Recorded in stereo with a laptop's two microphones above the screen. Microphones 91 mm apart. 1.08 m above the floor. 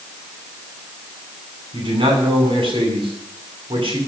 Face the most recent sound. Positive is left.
turn(degrees=-65)  # may be behind; listen again after turning